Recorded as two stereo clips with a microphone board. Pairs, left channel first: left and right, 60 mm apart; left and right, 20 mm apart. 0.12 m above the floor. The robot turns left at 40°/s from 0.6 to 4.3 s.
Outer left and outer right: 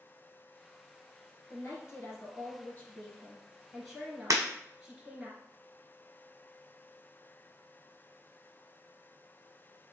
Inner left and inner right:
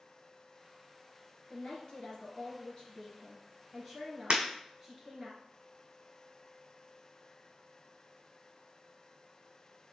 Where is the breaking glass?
60° right (ahead or behind), 1.1 m.